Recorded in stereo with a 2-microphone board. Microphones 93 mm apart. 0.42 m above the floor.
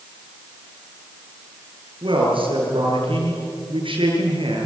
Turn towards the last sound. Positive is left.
turn(degrees=-75)  # may be behind; listen again after turning